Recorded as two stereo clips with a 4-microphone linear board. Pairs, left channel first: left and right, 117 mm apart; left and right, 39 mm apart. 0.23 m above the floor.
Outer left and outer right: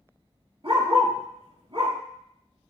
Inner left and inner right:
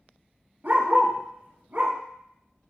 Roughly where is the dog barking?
Right.